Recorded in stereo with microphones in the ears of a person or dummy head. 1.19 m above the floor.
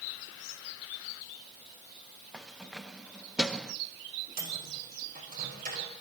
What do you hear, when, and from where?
2.3 s keys jangling: centre (ahead or behind), 0.6 m
4.4 s a microwave: 40° right (ahead or behind), 5 m